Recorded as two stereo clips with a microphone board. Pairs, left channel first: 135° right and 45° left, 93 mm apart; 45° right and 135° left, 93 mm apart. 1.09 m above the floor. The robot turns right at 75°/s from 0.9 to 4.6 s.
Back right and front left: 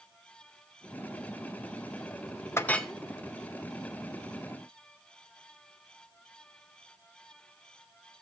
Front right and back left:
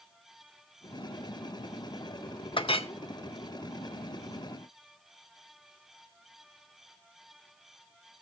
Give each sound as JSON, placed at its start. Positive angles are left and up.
{"t": 2.6, "sound": "a clink", "azimuth_deg": -70, "distance_m": 0.6}